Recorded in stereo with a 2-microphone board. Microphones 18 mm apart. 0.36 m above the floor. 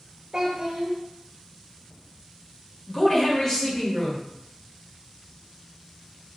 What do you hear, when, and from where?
0.3 s a child speaking: 40° right (ahead or behind), 0.5 m
2.9 s a woman speaking: 25° left (ahead or behind), 1.2 m